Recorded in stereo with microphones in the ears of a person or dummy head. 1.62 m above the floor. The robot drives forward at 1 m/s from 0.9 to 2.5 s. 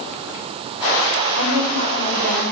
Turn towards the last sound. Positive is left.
turn(degrees=-80)